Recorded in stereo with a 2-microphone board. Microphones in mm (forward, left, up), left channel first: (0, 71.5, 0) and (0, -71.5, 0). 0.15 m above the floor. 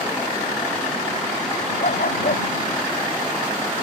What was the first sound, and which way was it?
A dog barking, 75° left (ahead or behind).